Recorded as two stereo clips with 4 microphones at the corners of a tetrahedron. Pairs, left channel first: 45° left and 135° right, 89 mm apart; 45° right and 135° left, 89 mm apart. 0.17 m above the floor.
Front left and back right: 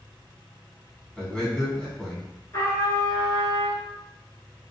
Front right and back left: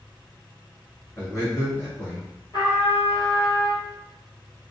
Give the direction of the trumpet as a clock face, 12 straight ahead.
12 o'clock.